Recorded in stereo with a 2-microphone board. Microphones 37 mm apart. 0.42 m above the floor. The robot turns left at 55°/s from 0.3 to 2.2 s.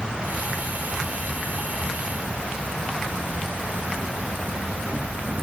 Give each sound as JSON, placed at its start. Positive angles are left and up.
{"t": 0.0, "sound": "an insect", "azimuth_deg": -20}